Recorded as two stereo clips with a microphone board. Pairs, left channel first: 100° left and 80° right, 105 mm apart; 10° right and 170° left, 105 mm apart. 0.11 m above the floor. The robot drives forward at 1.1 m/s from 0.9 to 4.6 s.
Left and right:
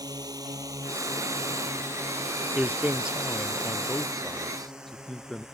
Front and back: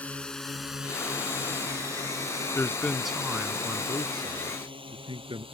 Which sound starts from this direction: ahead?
A man speaking, at 2.5 s.